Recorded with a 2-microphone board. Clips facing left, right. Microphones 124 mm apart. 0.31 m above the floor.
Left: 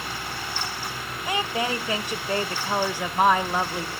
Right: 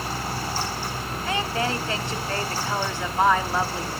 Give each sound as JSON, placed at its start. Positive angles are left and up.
{"t": 1.2, "sound": "a woman speaking", "side_deg": 15, "distance_m": 0.9}